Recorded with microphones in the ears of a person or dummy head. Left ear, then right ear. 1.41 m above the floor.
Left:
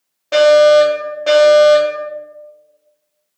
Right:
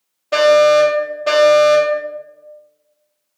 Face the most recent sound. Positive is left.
turn(degrees=15)  # may be behind; listen again after turning